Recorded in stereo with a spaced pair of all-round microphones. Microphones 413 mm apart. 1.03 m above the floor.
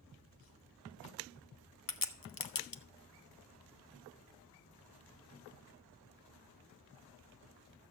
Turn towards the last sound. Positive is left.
turn(degrees=55)  # may be behind; listen again after turning